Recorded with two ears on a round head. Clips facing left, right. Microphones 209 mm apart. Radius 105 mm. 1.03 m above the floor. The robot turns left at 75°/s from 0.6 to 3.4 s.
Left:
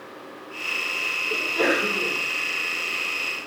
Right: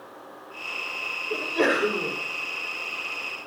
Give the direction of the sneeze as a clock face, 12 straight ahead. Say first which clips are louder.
Even; 1 o'clock.